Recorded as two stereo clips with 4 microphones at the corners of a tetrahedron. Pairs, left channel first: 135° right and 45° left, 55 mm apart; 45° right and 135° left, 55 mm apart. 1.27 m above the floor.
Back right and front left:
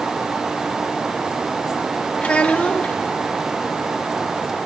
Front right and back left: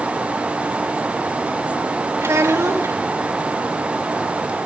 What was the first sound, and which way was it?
A child speaking, 160° left.